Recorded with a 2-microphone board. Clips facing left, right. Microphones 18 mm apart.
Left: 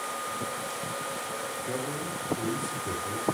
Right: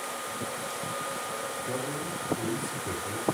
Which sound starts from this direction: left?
A man speaking, at 1.7 s.